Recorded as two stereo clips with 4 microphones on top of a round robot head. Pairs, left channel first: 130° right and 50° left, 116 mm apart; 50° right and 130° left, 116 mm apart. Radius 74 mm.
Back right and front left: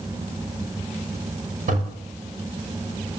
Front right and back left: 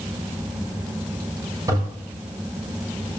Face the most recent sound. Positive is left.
turn(degrees=70)